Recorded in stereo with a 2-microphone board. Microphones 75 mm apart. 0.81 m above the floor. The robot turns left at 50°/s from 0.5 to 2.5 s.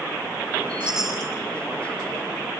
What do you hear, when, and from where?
0.8 s a chime: 15° right (ahead or behind), 4.5 m; by 1.3 s 10° left (ahead or behind), 4.5 m